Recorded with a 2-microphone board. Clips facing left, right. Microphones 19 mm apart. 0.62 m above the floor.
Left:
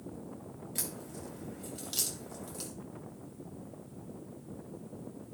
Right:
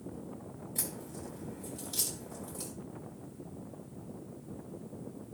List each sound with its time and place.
0.8 s a crack: 65° left (ahead or behind), 3 m